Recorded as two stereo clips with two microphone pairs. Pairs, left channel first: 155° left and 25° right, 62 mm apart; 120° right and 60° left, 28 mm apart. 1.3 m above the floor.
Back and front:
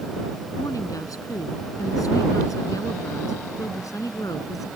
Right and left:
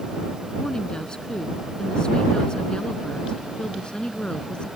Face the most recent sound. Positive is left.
turn(degrees=-175)